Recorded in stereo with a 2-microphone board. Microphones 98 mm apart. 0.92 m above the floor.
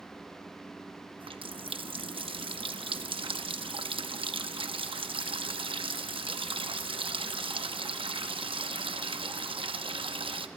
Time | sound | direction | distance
1.2 | a running tap | 60° right (ahead or behind) | 0.8 m